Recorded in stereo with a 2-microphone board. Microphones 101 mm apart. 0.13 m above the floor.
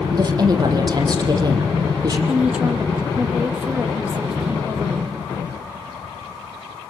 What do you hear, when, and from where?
0.1 s a woman speaking: 40° right (ahead or behind), 6 m
2.3 s a woman speaking: 10° right (ahead or behind), 5 m